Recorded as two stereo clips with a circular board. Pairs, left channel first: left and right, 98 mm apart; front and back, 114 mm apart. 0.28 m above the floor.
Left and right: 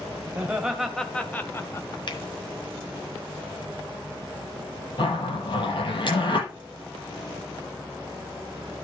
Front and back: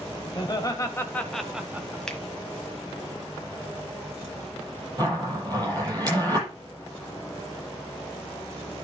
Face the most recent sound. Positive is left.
turn(degrees=125)